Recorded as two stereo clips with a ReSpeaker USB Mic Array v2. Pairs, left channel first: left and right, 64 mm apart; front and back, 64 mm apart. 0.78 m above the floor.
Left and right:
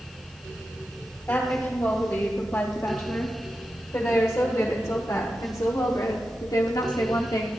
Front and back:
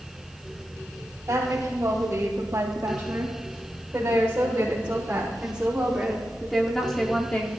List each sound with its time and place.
1.3 s a woman speaking: 140° left, 3.5 m; by 7.5 s 65° left, 1.3 m